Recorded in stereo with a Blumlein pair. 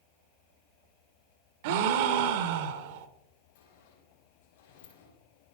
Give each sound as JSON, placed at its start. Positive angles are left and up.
{"t": 1.6, "sound": "a gasp", "azimuth_deg": -50, "distance_m": 0.8}
{"t": 3.5, "sound": "a sliding door", "azimuth_deg": 60, "distance_m": 4.0}